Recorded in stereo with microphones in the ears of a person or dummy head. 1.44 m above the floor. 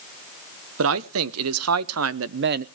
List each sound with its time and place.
0.8 s a man speaking: 70° right (ahead or behind), 1.2 m; by 2.6 s 40° right (ahead or behind), 0.5 m